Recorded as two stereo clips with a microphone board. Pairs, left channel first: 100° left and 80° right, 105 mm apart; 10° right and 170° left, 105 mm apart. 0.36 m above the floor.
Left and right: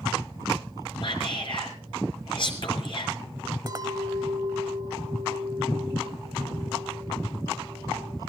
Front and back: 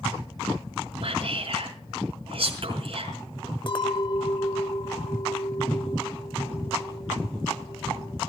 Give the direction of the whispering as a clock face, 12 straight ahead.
7 o'clock.